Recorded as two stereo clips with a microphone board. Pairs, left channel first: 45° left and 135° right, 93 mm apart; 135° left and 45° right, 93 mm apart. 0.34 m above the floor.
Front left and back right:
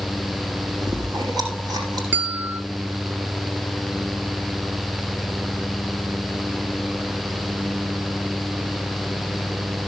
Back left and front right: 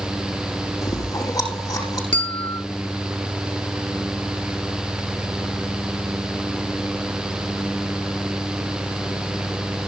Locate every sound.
0.8 s chewing: straight behind, 5 m
2.1 s a bell: 155° left, 1.5 m